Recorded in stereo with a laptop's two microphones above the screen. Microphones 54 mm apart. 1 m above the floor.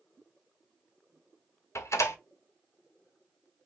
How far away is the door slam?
About 1.2 m.